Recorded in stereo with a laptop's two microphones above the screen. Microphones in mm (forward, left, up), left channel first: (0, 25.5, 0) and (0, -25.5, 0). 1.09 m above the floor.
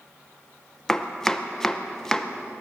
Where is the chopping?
5° left (ahead or behind), 0.9 m.